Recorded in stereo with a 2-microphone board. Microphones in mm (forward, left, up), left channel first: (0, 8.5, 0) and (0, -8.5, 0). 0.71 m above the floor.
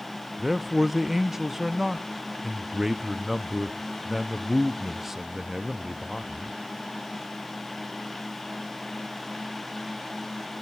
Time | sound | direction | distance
0.4 | a man speaking | 20° right (ahead or behind) | 0.5 m